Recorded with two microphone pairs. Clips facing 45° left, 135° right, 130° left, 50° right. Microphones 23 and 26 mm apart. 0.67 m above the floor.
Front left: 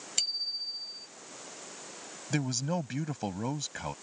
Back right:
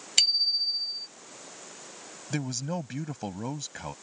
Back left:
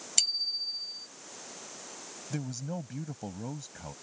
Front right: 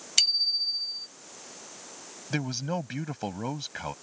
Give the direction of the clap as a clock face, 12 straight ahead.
No clap in this recording.